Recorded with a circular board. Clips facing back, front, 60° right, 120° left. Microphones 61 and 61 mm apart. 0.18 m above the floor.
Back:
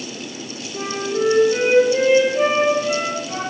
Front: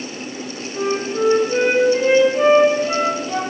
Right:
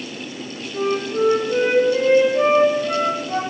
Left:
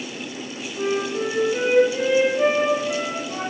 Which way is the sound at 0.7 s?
85° right.